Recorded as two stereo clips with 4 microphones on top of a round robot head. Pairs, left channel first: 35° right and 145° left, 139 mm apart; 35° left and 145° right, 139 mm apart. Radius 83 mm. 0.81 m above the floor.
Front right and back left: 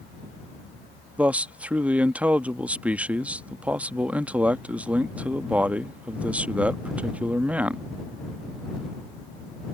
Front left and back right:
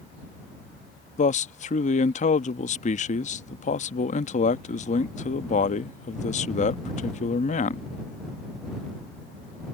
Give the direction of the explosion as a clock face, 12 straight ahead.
No explosion in this recording.